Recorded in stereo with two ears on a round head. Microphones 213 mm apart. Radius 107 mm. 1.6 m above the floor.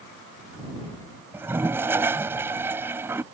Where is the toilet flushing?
10° right (ahead or behind).